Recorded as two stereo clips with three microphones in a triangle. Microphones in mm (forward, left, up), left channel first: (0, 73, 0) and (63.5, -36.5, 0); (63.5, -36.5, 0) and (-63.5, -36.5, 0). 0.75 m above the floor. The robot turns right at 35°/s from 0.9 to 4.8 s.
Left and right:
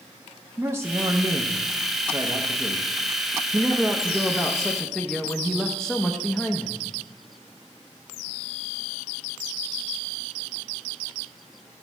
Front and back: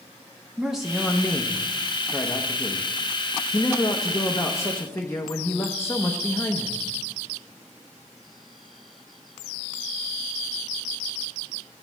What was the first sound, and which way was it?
A man speaking, 95° right.